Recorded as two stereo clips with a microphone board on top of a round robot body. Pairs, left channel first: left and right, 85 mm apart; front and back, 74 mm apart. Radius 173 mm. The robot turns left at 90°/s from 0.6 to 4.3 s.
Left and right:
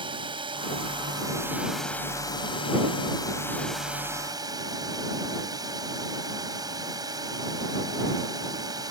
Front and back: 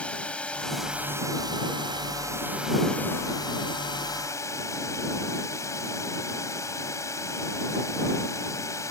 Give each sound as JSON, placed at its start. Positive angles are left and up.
{"t": 0.0, "sound": "a drone", "azimuth_deg": -75}